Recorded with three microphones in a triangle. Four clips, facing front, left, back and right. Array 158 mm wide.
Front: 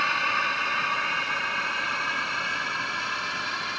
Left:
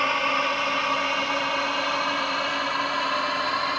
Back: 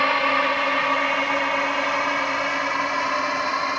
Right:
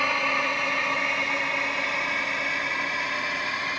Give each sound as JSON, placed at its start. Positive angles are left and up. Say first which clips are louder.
{"t": 0.0, "sound": "a drone", "louder": "left 2 dB, back 6 dB", "azimuth_deg": 175}